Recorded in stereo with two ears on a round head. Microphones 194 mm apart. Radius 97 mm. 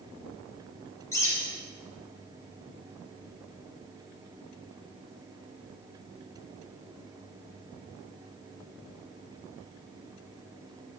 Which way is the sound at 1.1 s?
15° left (ahead or behind).